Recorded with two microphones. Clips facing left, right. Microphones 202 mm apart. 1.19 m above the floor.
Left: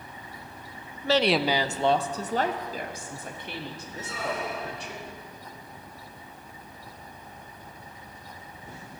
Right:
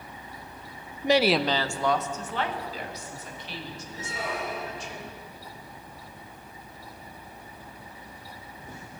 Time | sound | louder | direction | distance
1.0 | a woman speaking | right 1 dB | 20° right (ahead or behind) | 0.5 m
3.9 | a squeak | left 1 dB | 20° right (ahead or behind) | 7.5 m